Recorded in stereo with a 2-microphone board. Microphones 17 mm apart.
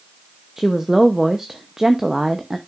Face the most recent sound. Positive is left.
turn(degrees=-25)  # may be behind; listen again after turning